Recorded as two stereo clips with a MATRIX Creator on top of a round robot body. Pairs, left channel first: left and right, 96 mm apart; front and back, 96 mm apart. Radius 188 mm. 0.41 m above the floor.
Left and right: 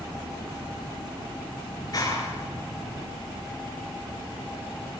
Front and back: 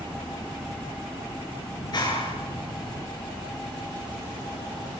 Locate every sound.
1.8 s a clap: 40° left, 9 m